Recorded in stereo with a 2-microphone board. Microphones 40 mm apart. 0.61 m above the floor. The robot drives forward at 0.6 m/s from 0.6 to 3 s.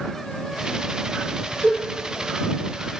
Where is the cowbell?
45° left (ahead or behind), 1.5 m; by 1.8 s 50° left (ahead or behind), 1.5 m.